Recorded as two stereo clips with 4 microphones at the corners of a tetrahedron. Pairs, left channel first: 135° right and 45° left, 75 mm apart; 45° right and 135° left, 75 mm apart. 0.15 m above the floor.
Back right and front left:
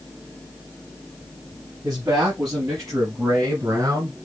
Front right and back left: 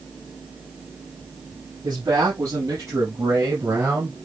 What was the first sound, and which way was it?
A man speaking, 95° left.